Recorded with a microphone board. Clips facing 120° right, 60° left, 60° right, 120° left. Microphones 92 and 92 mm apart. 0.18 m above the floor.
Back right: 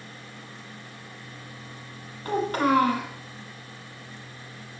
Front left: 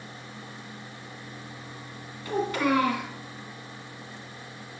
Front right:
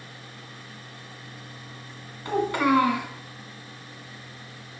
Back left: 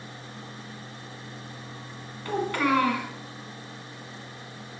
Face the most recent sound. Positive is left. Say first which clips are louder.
# back right 2 dB, front right 3 dB
turn(degrees=-120)